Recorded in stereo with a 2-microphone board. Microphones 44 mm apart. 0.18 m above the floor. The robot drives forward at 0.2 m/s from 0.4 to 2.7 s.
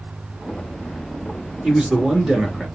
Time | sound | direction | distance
1.6 | a man speaking | 15° right (ahead or behind) | 2 m